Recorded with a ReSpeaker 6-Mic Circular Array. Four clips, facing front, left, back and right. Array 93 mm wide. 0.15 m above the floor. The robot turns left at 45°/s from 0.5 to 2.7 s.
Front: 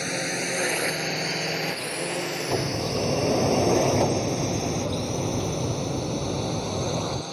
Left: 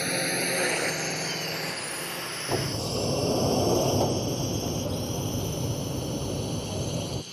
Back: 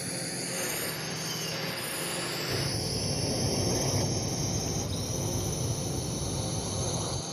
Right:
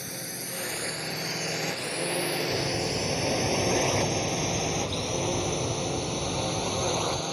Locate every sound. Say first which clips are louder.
0.0 s a drone: left 10 dB, front 8 dB; 40° left; by 7.3 s 65° right
2.5 s a sliding door: right 1 dB, front 7 dB; 30° left; by 7.2 s 20° left